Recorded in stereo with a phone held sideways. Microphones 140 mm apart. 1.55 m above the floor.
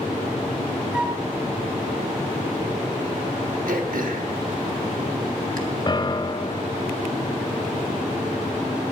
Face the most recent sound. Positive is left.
turn(degrees=35)  # may be behind; listen again after turning